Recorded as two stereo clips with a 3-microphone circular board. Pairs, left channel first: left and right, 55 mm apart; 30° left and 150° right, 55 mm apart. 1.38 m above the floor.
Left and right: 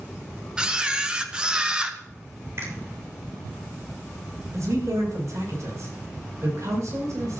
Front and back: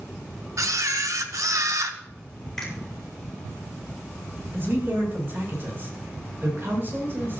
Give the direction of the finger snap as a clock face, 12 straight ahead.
2 o'clock.